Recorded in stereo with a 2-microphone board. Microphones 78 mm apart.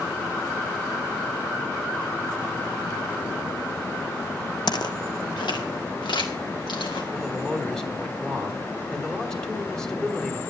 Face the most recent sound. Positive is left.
turn(degrees=10)  # may be behind; listen again after turning